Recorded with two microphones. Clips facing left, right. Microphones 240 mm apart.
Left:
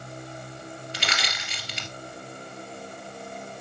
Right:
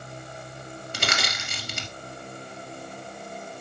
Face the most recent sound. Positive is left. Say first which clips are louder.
# right 6 dB
turn(degrees=-50)  # may be behind; listen again after turning